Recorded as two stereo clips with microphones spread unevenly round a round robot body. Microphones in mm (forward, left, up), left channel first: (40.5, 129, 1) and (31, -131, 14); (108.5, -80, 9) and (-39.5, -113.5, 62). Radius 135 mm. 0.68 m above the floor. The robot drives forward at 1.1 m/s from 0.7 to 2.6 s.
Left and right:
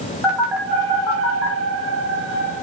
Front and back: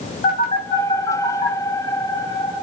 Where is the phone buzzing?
5° right, 5 m.